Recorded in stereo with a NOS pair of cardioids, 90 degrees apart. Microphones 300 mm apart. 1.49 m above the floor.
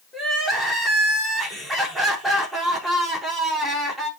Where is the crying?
Straight ahead, 5 m.